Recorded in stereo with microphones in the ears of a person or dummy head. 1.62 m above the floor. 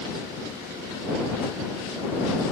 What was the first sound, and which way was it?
Only background noise.